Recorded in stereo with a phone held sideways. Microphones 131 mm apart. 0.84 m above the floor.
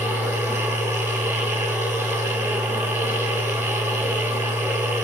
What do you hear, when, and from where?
0.0 s a machine running: 15° right (ahead or behind), 1.7 m